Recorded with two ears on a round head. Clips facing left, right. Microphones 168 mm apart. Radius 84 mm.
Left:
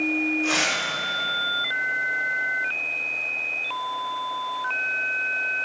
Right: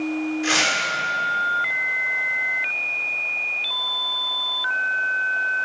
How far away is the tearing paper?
About 6.5 m.